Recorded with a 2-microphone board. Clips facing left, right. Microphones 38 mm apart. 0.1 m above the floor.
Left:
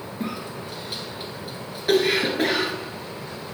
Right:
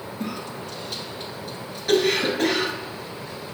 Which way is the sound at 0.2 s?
15° left (ahead or behind).